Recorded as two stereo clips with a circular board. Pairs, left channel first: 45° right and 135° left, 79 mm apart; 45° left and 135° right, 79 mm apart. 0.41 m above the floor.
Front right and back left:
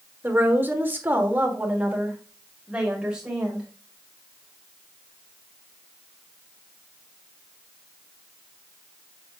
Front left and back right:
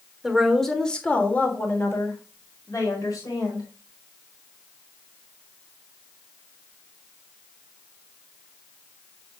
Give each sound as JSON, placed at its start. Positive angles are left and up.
{"t": 0.2, "sound": "a woman speaking", "azimuth_deg": 150, "distance_m": 1.4}